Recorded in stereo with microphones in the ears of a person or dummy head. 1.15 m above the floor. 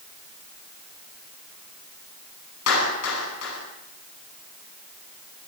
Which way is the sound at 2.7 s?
80° left.